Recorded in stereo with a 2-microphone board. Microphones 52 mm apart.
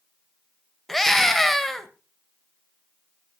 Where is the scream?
5° left (ahead or behind), 1.6 m.